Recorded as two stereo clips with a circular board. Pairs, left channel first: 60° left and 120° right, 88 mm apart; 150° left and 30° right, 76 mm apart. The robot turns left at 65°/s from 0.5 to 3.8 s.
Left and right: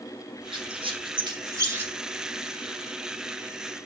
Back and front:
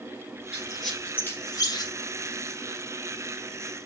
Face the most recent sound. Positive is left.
turn(degrees=45)